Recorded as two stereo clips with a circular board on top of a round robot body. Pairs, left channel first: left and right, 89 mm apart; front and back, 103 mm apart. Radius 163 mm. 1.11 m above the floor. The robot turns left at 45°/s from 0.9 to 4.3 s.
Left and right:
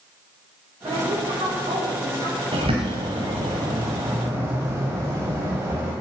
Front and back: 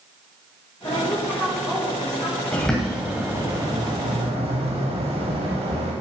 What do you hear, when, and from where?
0.8 s a woman speaking: 60° right, 4.5 m; by 2.4 s 130° right, 4.5 m
2.5 s a bird: 75° right, 1.5 m; by 5.9 s 155° right, 1.5 m